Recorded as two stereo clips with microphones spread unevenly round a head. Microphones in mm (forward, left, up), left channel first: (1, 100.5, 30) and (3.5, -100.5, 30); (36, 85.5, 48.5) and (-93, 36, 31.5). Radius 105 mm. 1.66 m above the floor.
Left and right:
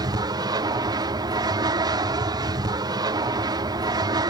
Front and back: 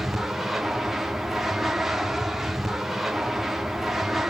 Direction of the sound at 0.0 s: 90° right.